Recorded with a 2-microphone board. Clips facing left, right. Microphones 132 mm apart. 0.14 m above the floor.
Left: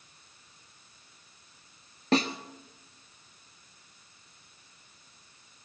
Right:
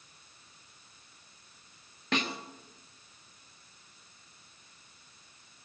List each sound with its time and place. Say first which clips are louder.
2.1 s a snare drum: left 7 dB; 35° left (ahead or behind), 1.3 m